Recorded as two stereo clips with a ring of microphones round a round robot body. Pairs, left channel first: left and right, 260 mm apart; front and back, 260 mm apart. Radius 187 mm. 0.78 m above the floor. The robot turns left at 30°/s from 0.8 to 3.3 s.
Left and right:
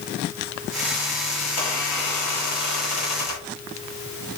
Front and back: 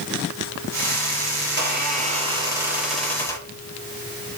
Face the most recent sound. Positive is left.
turn(degrees=80)